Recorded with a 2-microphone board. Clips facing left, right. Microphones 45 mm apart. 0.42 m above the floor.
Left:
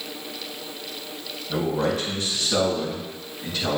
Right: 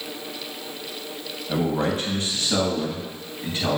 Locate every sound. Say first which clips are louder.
1.5 s a man speaking: even; 45° right (ahead or behind), 3 m; by 3.8 s 30° right (ahead or behind), 4 m